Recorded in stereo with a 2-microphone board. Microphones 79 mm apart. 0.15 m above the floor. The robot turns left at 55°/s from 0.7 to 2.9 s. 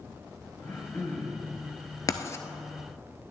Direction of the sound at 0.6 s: 50° left.